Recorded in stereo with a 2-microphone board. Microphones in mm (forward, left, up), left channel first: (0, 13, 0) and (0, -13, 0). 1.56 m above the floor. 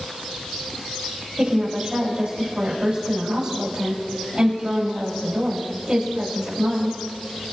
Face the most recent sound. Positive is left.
turn(degrees=-35)  # may be behind; listen again after turning